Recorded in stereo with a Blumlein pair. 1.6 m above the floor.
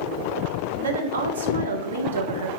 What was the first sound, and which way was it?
A woman speaking, 65° right.